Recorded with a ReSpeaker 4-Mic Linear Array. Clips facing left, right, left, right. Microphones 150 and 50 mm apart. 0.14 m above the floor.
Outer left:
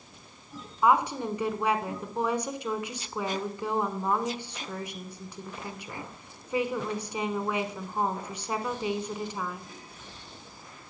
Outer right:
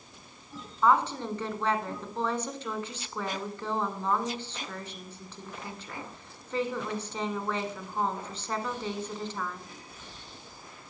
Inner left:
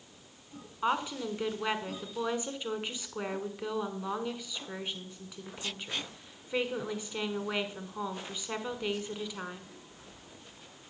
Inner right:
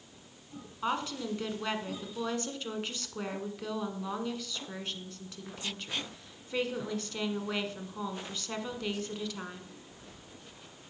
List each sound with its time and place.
0.8 s a woman speaking: 15° left (ahead or behind), 1.1 m